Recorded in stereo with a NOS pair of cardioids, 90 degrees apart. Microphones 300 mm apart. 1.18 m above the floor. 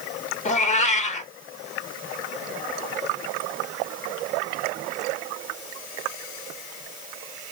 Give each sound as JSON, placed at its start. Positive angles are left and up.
{"t": 0.5, "sound": "a cat meowing", "azimuth_deg": 25, "distance_m": 1.1}